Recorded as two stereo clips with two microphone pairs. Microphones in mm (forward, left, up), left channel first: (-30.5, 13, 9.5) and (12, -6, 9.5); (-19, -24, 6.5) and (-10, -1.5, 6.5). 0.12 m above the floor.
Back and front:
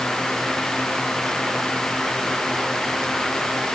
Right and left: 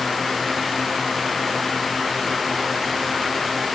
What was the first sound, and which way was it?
Only background noise.